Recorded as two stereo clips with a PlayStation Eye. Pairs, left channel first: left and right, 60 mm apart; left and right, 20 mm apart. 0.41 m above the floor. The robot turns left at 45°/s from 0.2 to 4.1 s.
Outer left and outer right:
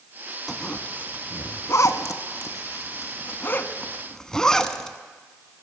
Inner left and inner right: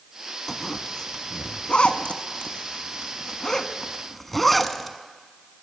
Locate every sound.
0.5 s a zipper: 5° left (ahead or behind), 0.7 m; by 5.0 s 10° left (ahead or behind), 0.7 m